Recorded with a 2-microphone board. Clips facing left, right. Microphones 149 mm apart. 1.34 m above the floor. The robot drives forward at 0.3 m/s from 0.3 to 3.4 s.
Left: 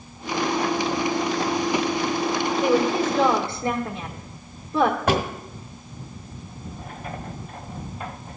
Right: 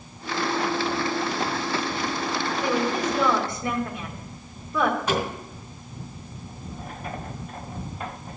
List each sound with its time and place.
2.6 s a woman speaking: 25° left (ahead or behind), 1.4 m; by 5.0 s 30° left (ahead or behind), 1.2 m
5.1 s a drawer: 65° left (ahead or behind), 1.7 m